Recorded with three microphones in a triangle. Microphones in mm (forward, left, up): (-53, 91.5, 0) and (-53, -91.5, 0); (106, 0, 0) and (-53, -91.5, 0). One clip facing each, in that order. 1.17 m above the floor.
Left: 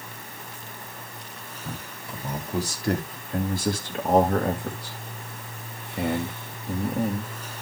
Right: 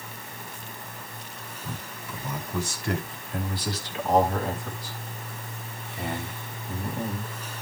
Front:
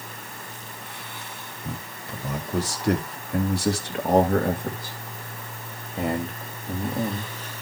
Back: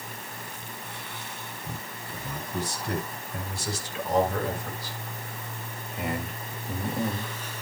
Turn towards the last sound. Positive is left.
turn(degrees=105)